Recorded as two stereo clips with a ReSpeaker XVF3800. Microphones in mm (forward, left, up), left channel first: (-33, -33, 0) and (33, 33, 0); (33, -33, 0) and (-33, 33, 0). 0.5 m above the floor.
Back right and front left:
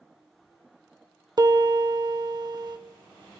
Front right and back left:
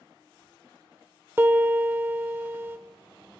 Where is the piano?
75° left, 0.9 m.